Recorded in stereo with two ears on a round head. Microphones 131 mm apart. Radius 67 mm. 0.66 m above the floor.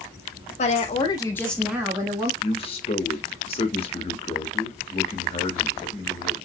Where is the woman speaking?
50° left (ahead or behind), 1.4 m; by 2.3 s 35° right (ahead or behind), 1.2 m.